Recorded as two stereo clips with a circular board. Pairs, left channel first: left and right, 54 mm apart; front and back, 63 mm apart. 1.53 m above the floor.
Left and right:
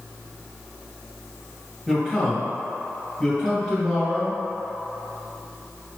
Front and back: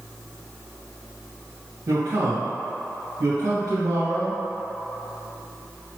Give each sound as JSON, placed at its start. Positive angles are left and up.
{"t": 1.9, "sound": "a man speaking", "azimuth_deg": 170, "distance_m": 1.7}